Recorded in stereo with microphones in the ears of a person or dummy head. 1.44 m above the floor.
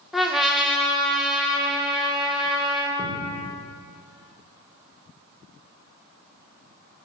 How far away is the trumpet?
About 0.8 m.